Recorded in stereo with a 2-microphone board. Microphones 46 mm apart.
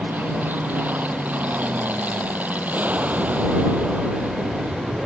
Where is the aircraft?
40° right (ahead or behind); by 5.1 s 30° right (ahead or behind).